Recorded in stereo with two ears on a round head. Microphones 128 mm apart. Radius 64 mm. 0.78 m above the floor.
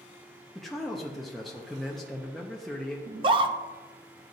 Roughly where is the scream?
Right.